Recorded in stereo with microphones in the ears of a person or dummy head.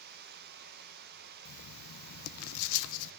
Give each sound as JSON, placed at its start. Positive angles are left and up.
{"t": 0.0, "sound": "running water", "side_deg": -55, "distance_m": 0.8}
{"t": 1.4, "sound": "writing", "side_deg": 75, "distance_m": 0.5}